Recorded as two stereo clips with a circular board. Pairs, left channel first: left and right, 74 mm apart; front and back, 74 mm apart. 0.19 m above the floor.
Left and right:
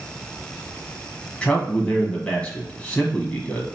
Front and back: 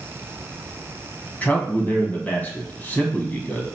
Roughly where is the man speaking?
Ahead left.